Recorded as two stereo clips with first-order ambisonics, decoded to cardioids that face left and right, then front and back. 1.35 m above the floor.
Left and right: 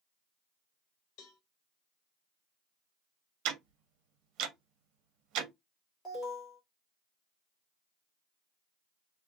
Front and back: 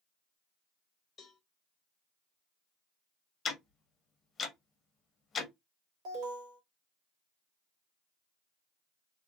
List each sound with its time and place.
1.2 s a cowbell: 65° left, 0.9 m
3.5 s ticking: 60° right, 0.8 m
6.0 s an alarm: 155° left, 2.0 m